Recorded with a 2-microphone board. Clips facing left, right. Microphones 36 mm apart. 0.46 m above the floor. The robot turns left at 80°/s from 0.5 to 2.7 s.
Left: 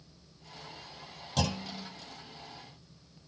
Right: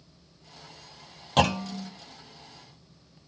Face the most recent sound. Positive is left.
turn(degrees=-155)